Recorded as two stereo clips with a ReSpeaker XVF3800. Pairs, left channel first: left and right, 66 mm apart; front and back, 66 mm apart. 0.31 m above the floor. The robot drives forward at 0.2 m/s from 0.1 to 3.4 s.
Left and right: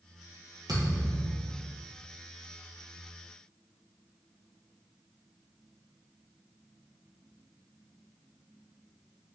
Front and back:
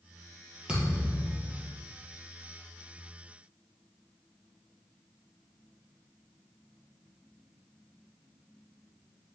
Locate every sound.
0.7 s a thud: 105° right, 2 m; by 1.8 s 110° right, 2 m